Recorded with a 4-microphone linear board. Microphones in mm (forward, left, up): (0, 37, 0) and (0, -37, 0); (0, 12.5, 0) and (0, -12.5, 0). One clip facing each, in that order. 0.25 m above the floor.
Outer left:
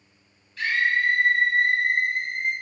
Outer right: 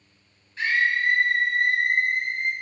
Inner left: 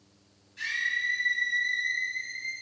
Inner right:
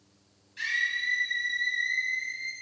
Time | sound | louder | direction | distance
0.6 | a scream | even, inner right 1 dB | 30° right (ahead or behind) | 1.5 m